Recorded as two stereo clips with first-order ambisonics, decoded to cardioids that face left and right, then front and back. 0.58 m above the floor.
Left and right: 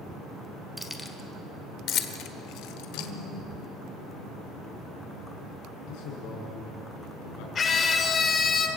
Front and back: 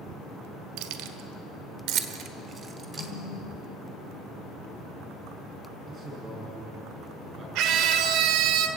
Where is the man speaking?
115° left, 7 m.